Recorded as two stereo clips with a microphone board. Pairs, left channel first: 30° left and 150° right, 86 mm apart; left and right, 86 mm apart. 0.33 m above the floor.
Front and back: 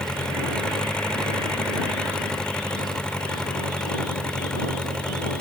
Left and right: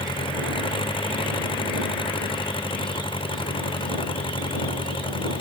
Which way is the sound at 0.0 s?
110° left.